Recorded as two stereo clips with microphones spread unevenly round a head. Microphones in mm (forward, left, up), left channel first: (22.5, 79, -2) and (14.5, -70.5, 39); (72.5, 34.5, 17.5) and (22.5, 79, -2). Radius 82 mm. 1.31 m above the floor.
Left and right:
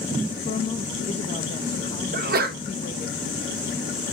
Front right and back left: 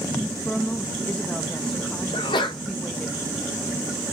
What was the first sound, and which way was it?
A woman speaking, 35° left.